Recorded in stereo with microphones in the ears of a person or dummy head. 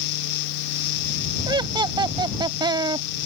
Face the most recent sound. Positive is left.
turn(degrees=-15)  # may be behind; listen again after turning